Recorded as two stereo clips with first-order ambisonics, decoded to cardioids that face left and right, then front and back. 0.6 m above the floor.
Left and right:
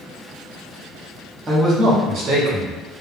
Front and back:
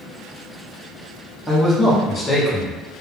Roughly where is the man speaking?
Ahead right.